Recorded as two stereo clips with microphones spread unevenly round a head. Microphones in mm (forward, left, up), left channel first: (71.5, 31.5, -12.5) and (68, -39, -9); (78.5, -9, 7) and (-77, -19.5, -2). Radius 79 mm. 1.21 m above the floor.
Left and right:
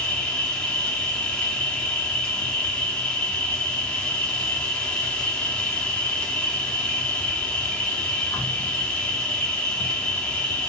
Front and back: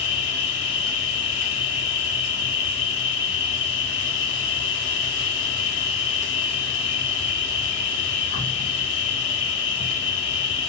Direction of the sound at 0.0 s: 15° left.